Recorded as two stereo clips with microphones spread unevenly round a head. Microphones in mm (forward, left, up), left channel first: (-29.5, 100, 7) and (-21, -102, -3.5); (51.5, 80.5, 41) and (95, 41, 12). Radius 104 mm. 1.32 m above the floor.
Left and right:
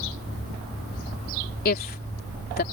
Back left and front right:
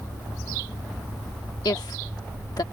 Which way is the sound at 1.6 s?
135° left.